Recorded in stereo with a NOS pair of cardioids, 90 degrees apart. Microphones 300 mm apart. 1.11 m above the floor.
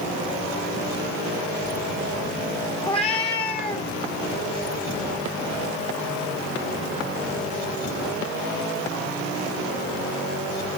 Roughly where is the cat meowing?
Ahead.